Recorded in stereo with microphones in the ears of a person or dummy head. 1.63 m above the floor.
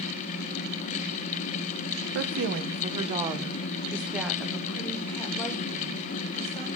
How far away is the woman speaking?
About 1.1 m.